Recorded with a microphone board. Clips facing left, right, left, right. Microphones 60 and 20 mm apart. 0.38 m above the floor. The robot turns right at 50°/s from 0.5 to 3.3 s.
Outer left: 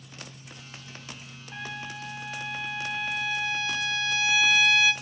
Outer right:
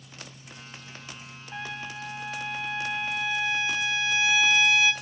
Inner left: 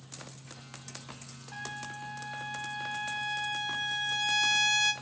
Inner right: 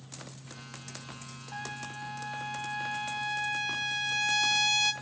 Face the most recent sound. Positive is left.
turn(degrees=-25)  # may be behind; listen again after turning